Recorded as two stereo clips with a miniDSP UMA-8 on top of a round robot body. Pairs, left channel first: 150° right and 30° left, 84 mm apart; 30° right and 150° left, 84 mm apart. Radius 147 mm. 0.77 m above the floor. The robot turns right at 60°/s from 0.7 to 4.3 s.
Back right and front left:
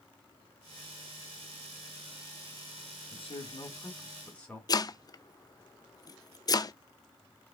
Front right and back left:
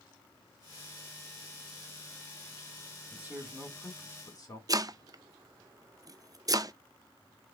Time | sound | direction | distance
3.1 | a man speaking | 145° right | 3.5 m
4.7 | chopping | straight behind | 0.8 m